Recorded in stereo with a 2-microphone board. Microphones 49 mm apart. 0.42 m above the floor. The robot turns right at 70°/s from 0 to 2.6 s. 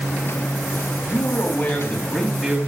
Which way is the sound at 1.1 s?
90° left.